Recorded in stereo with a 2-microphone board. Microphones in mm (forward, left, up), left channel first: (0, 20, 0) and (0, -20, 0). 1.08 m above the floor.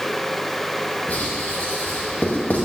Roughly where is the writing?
Left.